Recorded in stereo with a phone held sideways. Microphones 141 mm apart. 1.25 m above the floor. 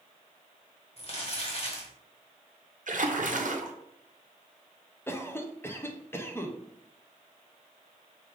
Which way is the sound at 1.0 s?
45° left (ahead or behind).